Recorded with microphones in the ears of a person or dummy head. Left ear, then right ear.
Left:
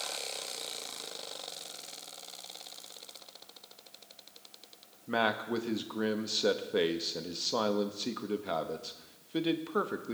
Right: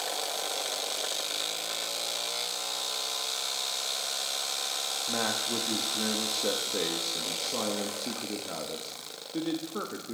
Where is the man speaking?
35° left (ahead or behind), 0.7 m.